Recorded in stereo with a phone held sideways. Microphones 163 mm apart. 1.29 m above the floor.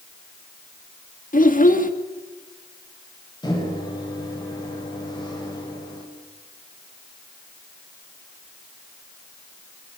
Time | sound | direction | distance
1.3 | a child speaking | 55° left (ahead or behind) | 2.0 m
3.4 | a microwave | 25° left (ahead or behind) | 6.5 m